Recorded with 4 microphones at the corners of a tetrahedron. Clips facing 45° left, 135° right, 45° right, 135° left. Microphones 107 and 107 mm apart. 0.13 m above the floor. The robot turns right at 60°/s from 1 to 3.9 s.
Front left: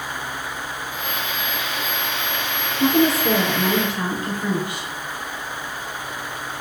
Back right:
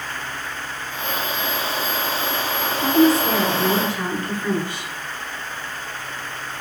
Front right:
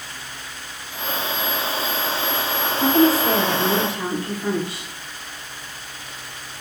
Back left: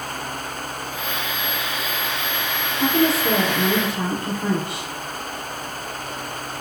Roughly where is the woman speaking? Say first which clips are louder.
Back right 2 dB, front right 3 dB; ahead left.